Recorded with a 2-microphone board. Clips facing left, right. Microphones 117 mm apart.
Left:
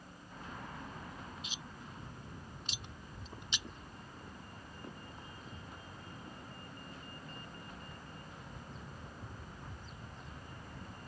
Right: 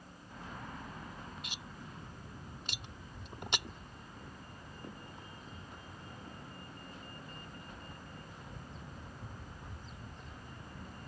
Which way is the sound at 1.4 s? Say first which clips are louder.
Right 1 dB; 70° right (ahead or behind).